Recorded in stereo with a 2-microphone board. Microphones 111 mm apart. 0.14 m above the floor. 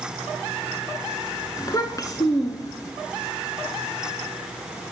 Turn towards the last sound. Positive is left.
turn(degrees=35)  # may be behind; listen again after turning